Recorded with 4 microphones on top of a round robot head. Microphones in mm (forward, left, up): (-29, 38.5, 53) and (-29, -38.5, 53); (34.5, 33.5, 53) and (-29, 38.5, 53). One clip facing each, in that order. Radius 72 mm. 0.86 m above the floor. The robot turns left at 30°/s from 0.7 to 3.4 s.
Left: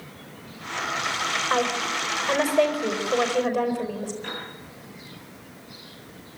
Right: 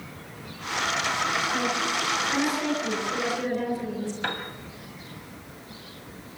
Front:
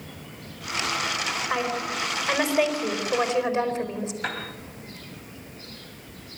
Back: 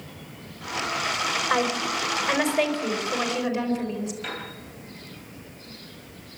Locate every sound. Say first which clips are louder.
1.5 s a woman speaking: left 2 dB, back 3 dB; 110° left, 4.5 m; by 4.1 s 55° left, 4.5 m
4.2 s a piano: right 4 dB, front 3 dB; 60° right, 2.5 m